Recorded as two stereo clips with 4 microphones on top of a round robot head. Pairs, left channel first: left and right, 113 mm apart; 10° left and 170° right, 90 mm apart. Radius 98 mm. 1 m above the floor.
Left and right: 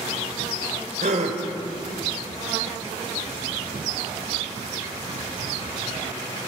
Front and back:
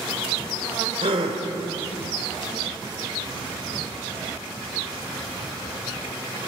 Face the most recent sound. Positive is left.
turn(degrees=-130)